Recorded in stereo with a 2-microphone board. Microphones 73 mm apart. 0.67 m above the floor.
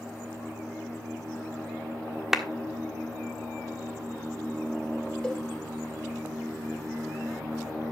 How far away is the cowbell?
About 2.5 m.